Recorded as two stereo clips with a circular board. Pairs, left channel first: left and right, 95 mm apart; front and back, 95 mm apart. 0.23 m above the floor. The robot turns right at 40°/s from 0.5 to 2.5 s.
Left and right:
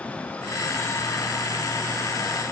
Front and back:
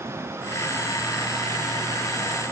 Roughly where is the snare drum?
No snare drum in this recording.